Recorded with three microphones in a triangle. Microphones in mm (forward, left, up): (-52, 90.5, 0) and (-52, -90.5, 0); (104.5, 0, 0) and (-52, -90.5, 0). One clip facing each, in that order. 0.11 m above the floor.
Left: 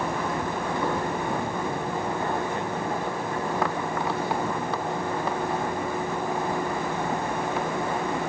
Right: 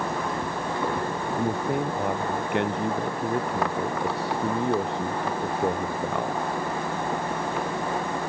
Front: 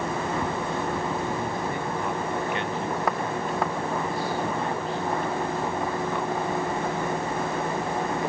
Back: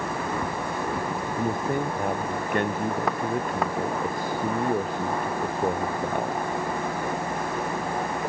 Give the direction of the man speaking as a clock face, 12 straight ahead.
4 o'clock.